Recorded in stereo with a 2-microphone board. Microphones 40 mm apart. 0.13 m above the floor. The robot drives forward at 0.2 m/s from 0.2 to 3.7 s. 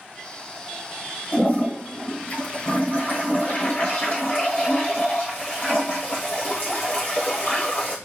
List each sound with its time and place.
1.3 s a toilet flushing: 45° left (ahead or behind), 2.5 m; by 8.0 s 40° left (ahead or behind), 2.5 m